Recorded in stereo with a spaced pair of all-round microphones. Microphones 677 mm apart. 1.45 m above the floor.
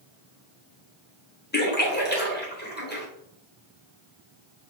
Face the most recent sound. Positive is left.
turn(degrees=15)  # may be behind; listen again after turning